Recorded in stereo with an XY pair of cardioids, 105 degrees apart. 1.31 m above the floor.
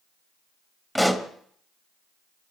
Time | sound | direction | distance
0.9 | a pop | 5° right | 1.6 m